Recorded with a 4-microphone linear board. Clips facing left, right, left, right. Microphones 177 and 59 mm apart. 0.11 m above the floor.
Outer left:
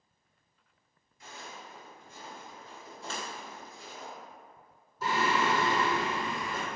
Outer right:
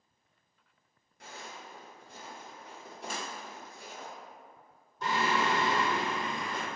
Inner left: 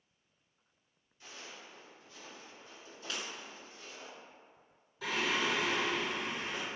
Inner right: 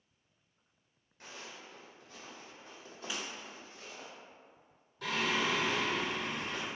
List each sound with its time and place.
1.2 s footsteps: 75° right (ahead or behind), 1.5 m; by 4.1 s 70° right (ahead or behind), 2.5 m
3.1 s breaking glass: 15° right (ahead or behind), 0.7 m
5.0 s singing: 5° left (ahead or behind), 1.1 m